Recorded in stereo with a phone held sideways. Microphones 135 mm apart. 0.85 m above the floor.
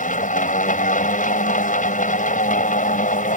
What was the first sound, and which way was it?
A machine running, 70° left (ahead or behind).